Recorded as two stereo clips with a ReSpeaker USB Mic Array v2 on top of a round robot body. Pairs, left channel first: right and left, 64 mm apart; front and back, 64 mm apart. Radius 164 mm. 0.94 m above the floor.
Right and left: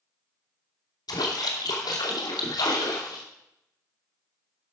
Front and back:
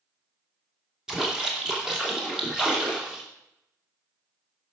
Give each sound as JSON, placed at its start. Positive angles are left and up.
{"t": 1.1, "sound": "a splash", "azimuth_deg": -95, "distance_m": 2.5}